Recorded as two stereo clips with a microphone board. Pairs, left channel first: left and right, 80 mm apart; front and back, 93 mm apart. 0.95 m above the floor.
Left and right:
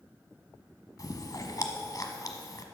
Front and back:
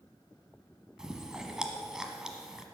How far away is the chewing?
About 1.1 m.